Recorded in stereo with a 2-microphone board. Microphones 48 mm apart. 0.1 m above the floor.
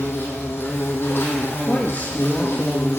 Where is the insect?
50° left (ahead or behind), 2.0 m.